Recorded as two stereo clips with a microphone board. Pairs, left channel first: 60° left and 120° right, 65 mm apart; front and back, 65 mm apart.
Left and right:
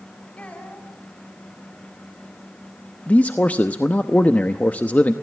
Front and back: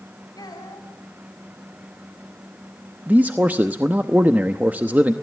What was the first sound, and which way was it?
A child speaking, 10° right.